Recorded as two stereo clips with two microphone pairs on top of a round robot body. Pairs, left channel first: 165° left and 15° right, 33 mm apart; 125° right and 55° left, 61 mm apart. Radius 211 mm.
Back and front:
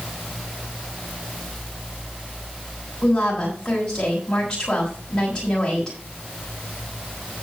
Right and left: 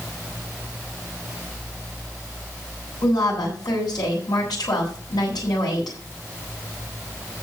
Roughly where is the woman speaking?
Behind right.